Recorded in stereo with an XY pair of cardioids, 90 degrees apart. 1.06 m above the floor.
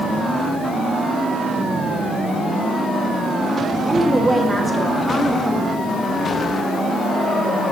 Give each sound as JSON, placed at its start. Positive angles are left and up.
{"t": 3.9, "sound": "a woman speaking", "azimuth_deg": -10, "distance_m": 1.3}